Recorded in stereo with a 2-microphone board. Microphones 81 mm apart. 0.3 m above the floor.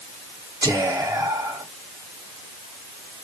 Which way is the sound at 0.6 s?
50° right (ahead or behind).